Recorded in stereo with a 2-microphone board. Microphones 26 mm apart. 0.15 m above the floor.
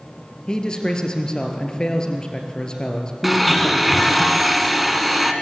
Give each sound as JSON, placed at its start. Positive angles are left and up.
{"t": 0.5, "sound": "a man speaking", "side_deg": 30, "distance_m": 2.5}
{"t": 3.2, "sound": "a blender", "side_deg": -5, "distance_m": 1.6}